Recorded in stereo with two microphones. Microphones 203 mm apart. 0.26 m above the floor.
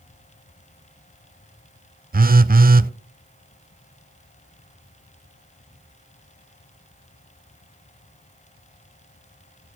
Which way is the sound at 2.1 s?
45° right (ahead or behind).